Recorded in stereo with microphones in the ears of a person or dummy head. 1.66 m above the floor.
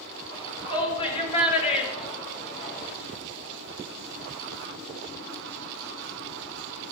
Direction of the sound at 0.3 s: 30° left (ahead or behind).